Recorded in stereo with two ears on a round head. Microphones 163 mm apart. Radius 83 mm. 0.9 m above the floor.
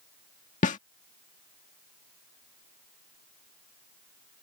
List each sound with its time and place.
0.6 s a snare drum: 45° left (ahead or behind)